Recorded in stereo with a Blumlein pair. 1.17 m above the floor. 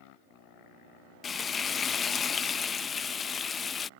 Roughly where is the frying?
Ahead.